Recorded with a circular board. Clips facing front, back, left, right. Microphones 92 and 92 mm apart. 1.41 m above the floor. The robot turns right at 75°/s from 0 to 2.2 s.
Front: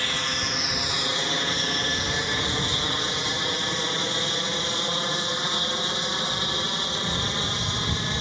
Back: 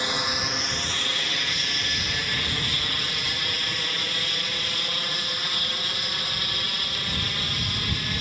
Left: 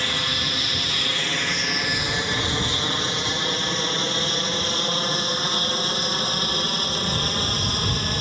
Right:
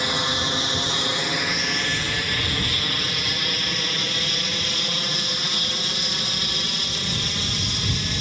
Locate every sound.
0.0 s an aircraft: 140° right; by 8.2 s 60° left